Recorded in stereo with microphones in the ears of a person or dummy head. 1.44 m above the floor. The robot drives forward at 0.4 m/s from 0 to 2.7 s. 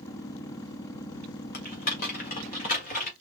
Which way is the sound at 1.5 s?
45° left (ahead or behind).